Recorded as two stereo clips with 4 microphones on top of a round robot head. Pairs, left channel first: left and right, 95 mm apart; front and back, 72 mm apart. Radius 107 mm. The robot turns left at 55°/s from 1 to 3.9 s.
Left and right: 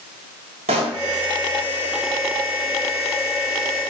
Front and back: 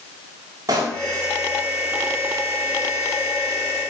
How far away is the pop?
About 1.5 m.